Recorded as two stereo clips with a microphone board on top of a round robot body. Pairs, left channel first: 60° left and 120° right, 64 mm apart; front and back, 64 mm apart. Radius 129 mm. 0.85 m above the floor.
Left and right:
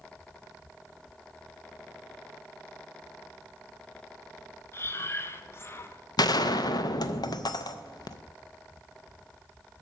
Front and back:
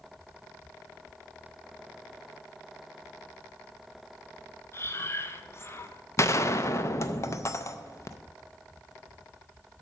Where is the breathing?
30° left, 1.0 m.